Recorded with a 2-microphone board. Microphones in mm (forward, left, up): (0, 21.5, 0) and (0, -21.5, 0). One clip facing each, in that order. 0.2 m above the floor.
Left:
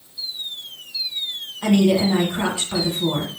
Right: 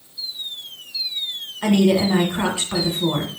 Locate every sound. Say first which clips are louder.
1.6 s a woman speaking: even; 35° right (ahead or behind), 1.3 m